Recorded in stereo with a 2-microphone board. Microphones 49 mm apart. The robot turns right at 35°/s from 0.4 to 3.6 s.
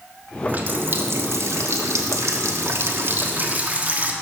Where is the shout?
I don't hear a shout.